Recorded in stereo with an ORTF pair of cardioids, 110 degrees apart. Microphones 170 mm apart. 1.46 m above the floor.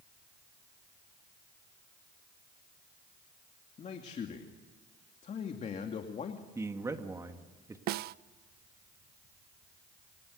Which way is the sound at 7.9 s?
70° right.